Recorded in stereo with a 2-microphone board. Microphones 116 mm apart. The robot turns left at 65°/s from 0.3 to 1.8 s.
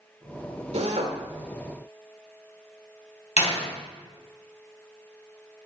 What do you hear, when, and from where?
0.7 s a drill: 70° right (ahead or behind), 1.8 m
3.4 s a door slam: 75° left (ahead or behind), 3 m